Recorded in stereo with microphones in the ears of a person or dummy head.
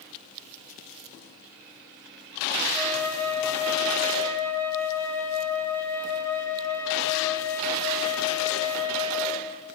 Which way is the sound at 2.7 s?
15° left (ahead or behind).